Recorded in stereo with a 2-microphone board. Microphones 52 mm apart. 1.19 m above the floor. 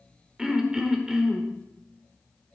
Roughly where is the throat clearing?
Centre.